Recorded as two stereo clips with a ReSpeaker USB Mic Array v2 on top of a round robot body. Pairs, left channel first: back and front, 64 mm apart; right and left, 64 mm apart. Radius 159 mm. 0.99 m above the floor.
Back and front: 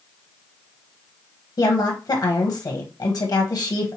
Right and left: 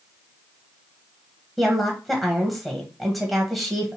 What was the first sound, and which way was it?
A woman speaking, straight behind.